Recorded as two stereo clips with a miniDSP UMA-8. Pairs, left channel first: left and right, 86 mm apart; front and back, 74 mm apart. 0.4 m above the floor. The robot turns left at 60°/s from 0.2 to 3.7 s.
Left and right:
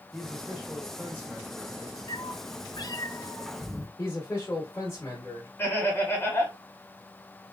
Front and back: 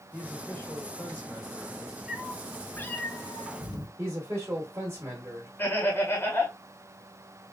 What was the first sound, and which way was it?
A man speaking, 20° left.